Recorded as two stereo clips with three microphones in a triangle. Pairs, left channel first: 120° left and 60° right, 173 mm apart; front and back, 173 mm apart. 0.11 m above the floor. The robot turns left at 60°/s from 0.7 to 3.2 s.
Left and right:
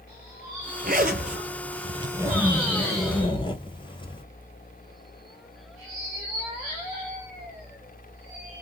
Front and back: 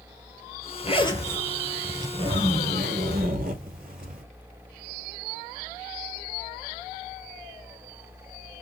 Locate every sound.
0.8 s a zipper: 45° right, 1.1 m; by 4.2 s 175° left, 1.1 m